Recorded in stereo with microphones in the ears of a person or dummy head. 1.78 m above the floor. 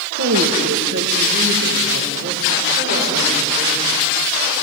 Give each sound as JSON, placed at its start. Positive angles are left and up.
{"t": 0.2, "sound": "a woman speaking", "side_deg": -80, "distance_m": 2.5}